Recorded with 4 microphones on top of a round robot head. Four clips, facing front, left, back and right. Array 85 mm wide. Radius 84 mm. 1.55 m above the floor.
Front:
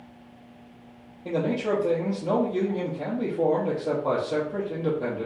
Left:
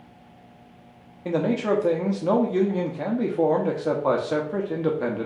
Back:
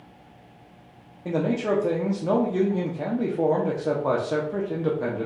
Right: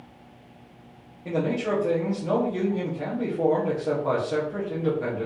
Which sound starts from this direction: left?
A man speaking, at 1.2 s.